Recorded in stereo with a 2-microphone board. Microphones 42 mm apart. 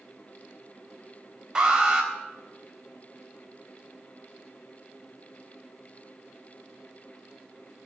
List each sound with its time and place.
1.6 s an alarm: 15° right (ahead or behind), 4 m